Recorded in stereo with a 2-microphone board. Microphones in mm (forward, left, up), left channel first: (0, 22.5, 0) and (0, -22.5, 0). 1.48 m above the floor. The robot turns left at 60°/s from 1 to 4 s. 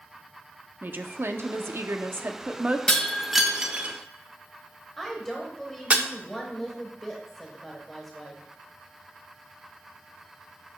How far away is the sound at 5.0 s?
About 1.3 m.